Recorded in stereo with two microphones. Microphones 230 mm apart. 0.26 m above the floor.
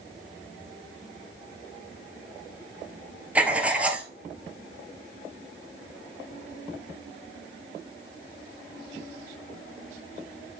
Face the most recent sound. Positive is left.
turn(degrees=-5)  # may be behind; listen again after turning